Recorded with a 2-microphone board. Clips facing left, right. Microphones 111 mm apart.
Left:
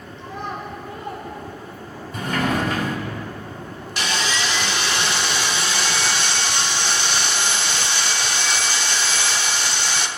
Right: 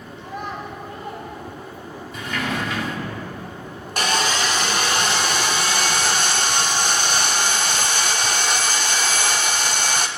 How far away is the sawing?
About 0.6 m.